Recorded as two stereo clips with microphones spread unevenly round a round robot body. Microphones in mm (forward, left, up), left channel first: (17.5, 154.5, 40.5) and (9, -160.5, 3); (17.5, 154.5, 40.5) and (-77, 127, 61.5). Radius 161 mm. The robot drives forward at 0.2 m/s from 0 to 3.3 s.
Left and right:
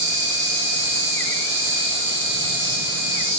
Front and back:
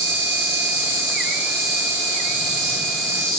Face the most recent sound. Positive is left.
turn(degrees=-165)